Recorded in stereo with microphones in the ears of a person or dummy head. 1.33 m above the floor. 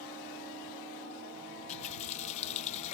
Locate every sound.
1.7 s a running tap: 40° left (ahead or behind)